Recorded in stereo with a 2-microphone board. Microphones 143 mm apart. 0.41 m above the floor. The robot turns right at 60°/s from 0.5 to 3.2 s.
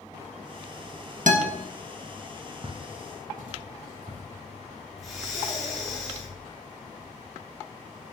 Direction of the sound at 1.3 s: 70° right (ahead or behind).